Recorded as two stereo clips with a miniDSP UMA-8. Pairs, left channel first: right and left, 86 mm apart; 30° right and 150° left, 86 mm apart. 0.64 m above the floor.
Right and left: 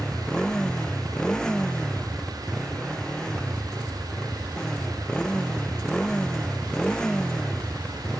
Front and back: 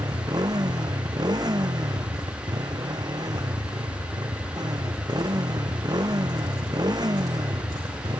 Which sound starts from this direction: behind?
A motorcycle, at 0.0 s.